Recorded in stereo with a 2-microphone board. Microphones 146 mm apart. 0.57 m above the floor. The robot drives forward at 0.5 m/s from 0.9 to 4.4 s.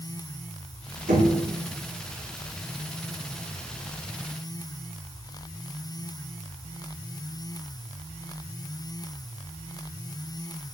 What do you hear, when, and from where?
1.1 s knocking: 85° right, 3 m